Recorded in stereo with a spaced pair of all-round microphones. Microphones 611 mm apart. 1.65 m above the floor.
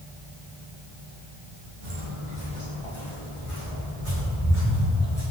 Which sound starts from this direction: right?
Footsteps, at 1.8 s.